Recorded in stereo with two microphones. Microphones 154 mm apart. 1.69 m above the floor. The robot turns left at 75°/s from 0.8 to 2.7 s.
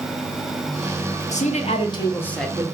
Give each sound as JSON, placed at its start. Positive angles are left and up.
{"t": 1.3, "sound": "a man speaking", "azimuth_deg": 85, "distance_m": 0.8}